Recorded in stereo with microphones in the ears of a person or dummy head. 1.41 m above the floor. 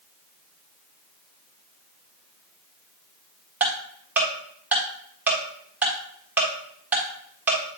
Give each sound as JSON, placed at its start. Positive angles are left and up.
{"t": 3.6, "sound": "ticking", "side_deg": -10, "distance_m": 1.4}